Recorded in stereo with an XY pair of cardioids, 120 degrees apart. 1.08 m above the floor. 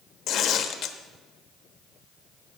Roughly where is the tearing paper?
Ahead left.